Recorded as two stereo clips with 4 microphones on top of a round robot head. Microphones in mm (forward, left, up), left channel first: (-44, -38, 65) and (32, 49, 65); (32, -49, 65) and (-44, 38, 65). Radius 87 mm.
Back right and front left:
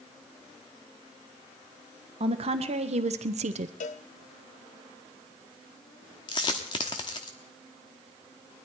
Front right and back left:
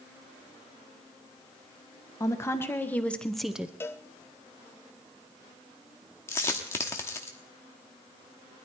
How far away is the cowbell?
About 0.8 m.